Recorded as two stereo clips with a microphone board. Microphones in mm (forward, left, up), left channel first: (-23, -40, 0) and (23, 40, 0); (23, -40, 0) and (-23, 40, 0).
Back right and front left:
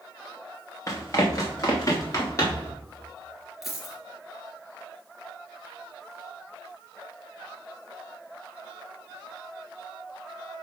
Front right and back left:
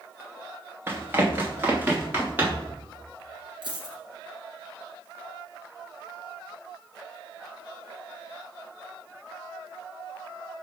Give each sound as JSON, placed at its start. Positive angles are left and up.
{"t": 0.9, "sound": "running footsteps", "azimuth_deg": -175, "distance_m": 2.0}
{"t": 3.6, "sound": "a dropped coin", "azimuth_deg": 150, "distance_m": 1.6}